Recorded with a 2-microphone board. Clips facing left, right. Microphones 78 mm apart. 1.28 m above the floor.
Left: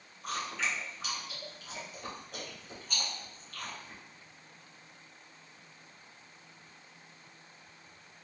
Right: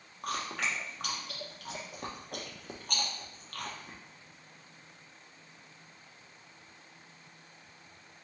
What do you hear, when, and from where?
0.2 s chewing: 60° right (ahead or behind), 1.0 m